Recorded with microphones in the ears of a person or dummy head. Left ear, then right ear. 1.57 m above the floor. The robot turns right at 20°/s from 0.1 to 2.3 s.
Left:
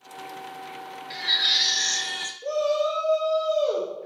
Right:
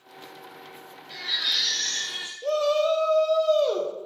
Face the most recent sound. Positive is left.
turn(degrees=-15)  # may be behind; listen again after turning